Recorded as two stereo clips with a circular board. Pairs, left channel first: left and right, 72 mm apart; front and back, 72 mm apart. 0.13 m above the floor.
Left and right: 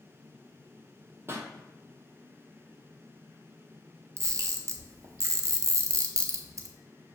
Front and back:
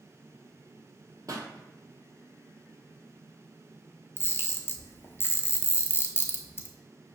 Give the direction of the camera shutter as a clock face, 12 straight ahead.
2 o'clock.